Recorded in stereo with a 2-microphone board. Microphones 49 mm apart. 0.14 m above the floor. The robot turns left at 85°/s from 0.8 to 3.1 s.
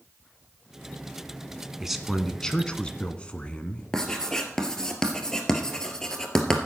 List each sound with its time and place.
1.8 s a man speaking: 10° right (ahead or behind), 1.1 m; by 3.8 s 20° left (ahead or behind), 1.1 m
3.9 s writing: 10° left (ahead or behind), 1.7 m